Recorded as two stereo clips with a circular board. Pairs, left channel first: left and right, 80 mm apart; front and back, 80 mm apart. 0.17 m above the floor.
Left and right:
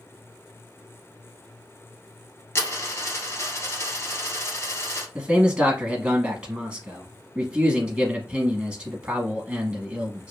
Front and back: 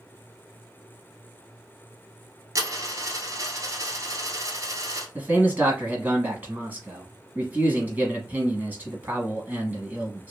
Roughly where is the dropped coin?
Behind left.